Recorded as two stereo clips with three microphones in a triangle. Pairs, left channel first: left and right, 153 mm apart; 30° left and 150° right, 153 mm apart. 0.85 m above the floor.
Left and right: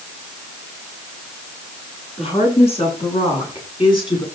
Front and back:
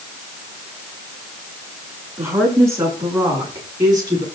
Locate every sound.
2.2 s a woman speaking: 135° left, 8.5 m; by 4.2 s 145° left, 8 m